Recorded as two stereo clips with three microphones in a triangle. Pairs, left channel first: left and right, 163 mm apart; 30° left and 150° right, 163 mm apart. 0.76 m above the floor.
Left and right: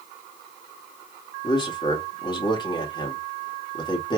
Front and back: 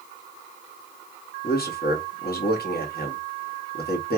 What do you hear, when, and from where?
1.4 s a man speaking: 30° left, 1.8 m